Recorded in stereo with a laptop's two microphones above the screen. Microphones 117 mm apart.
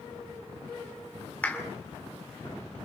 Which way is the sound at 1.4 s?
10° left (ahead or behind).